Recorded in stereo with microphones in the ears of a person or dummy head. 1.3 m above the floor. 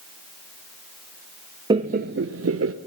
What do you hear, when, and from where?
1.7 s laughter: 20° right (ahead or behind), 0.8 m; by 2.7 s 75° right (ahead or behind), 1.2 m